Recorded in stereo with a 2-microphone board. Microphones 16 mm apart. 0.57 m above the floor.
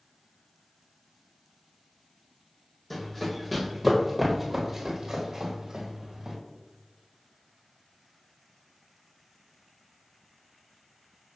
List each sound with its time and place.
2.9 s running footsteps: 15° left (ahead or behind), 1.5 m; by 6.4 s 60° right (ahead or behind), 1.6 m